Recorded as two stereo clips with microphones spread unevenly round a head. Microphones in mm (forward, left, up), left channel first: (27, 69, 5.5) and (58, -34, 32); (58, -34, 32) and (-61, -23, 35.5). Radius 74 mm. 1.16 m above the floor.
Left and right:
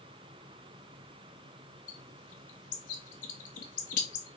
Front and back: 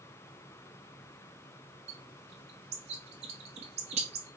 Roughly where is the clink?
No clink in this recording.